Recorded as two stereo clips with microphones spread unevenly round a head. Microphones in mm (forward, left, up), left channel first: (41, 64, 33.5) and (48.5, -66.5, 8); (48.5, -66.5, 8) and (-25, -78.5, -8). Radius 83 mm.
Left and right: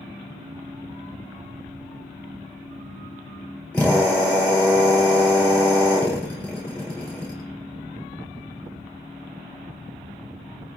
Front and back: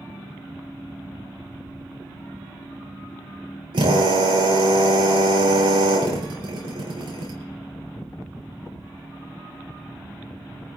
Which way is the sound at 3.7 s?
175° left.